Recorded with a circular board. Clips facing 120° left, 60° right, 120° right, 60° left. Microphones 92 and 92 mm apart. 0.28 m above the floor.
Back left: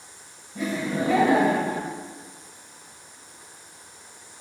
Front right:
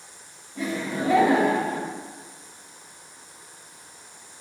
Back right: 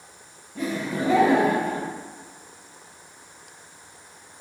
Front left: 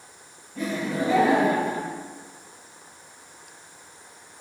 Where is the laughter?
175° left, 1.8 m; by 1.9 s 80° left, 1.6 m.